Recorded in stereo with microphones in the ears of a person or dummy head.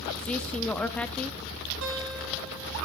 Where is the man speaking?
10° left (ahead or behind), 0.6 m.